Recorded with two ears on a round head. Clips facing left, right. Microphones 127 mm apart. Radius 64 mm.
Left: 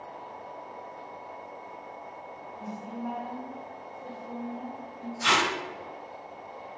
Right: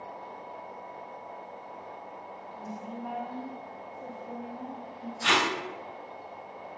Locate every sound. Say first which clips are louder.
2.6 s a woman speaking: left 2 dB; centre (ahead or behind), 0.7 m
5.2 s tape being pulled: left 1 dB; 50° left (ahead or behind), 1.7 m